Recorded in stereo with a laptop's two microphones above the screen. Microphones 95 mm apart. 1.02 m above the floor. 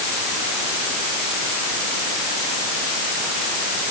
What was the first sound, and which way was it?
Only background noise.